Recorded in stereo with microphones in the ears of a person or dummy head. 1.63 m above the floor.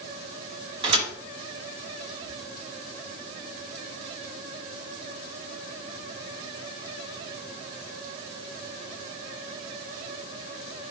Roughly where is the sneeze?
I don't hear a sneeze.